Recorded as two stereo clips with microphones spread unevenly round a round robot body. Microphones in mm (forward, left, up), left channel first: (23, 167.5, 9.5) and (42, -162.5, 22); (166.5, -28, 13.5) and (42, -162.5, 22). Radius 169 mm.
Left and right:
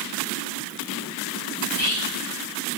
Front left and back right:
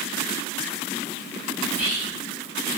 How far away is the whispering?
About 1.3 m.